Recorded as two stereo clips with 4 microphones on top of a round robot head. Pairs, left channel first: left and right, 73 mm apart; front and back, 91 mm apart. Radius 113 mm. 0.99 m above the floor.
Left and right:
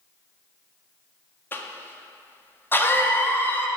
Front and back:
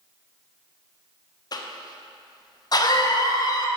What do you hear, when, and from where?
1.5 s a cough: 35° left, 1.0 m